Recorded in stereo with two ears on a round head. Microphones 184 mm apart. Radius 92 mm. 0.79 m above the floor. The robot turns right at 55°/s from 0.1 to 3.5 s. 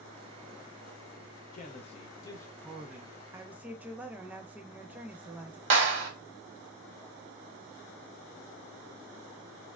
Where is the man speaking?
110° left, 0.6 m; by 3.1 s 160° right, 0.6 m.